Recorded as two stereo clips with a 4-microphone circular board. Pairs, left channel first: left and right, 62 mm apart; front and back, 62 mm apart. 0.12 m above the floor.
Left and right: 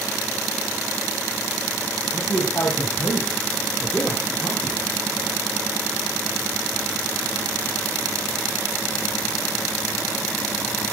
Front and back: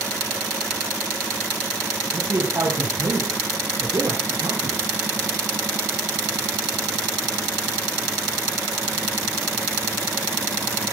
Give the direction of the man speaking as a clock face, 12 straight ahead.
7 o'clock.